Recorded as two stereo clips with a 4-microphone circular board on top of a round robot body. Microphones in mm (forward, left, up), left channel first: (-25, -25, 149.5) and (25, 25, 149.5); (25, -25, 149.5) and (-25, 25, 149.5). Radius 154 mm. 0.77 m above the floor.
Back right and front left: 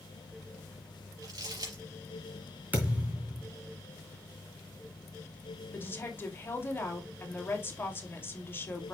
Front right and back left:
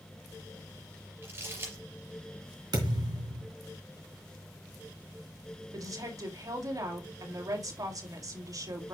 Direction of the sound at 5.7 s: 165° left.